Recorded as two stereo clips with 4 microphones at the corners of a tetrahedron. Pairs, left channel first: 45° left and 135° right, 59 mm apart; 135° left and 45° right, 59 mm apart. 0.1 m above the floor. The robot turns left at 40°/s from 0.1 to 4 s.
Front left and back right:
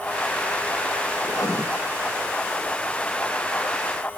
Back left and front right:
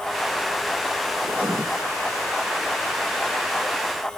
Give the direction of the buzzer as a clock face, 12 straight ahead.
No buzzer in this recording.